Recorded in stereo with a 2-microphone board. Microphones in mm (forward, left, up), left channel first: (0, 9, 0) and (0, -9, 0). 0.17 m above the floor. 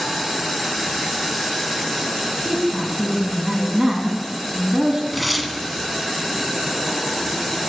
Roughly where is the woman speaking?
Right.